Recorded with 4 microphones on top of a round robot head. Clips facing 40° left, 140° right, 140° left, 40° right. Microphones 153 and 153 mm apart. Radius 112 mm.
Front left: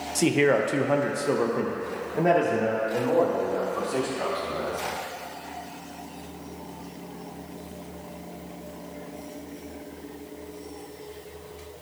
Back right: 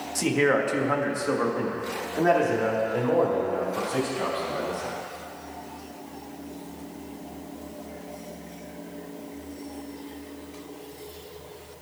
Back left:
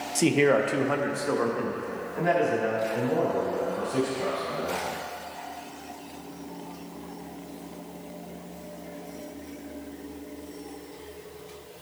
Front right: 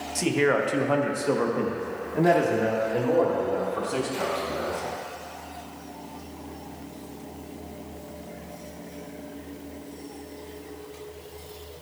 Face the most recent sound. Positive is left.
turn(degrees=-40)